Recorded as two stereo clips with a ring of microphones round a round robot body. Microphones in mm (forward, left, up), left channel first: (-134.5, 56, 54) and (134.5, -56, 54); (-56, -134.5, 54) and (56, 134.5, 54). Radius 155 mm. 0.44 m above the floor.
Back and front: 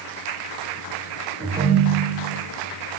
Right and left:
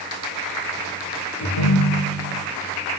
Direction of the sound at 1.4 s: 100° right.